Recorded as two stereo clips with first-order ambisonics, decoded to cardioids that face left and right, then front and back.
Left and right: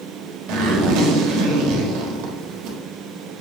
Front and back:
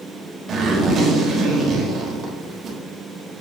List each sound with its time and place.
0.5 s a zipper: 115° right, 1.5 m